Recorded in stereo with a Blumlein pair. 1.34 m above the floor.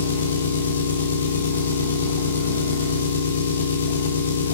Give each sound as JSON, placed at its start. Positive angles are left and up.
{"t": 0.0, "sound": "an engine running", "azimuth_deg": 70, "distance_m": 1.6}